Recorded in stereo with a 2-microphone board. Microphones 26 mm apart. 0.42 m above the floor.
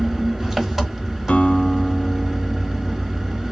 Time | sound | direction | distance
0.0 | an engine running | 15° right (ahead or behind) | 1.0 m
1.3 | a guitar | 55° left (ahead or behind) | 0.8 m